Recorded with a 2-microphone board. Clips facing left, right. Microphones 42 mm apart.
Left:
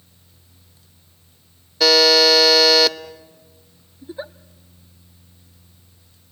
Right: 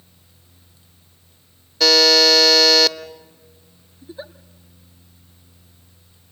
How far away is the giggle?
About 0.6 m.